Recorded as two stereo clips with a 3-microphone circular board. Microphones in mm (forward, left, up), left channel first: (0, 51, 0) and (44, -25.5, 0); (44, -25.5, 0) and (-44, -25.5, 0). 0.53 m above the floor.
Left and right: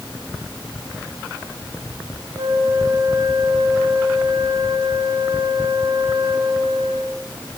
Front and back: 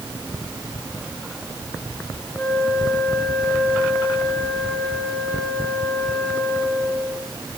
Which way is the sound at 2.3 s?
55° right.